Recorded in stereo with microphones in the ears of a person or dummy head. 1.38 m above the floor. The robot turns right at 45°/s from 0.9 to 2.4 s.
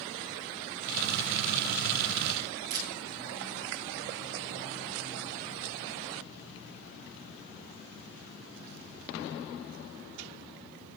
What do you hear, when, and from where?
2.7 s a camera shutter: 50° right (ahead or behind), 5.5 m